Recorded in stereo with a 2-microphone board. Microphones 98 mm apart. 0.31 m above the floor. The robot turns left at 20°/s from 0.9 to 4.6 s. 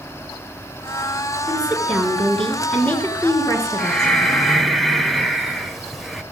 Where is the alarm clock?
I don't hear an alarm clock.